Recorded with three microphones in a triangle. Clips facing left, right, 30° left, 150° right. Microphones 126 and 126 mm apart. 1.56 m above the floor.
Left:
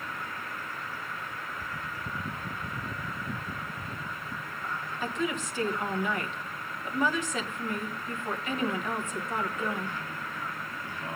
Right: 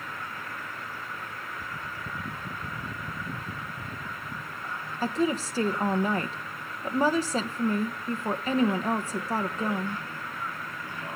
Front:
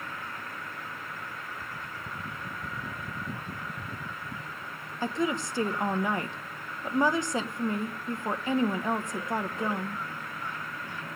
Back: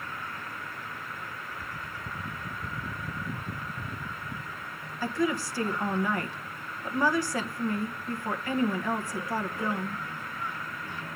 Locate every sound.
5.0 s a woman speaking: 40° right, 1.2 m